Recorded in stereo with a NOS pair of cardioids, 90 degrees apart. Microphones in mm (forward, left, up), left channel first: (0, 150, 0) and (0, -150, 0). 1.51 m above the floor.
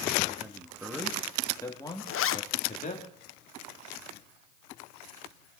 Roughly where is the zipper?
Ahead left.